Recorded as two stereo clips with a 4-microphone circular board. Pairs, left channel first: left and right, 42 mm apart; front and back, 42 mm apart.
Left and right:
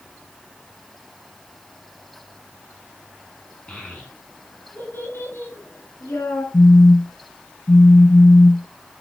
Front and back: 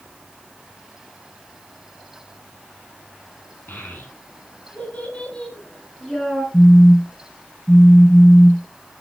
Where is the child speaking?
30° left, 3 m; by 6.4 s 85° left, 4.5 m.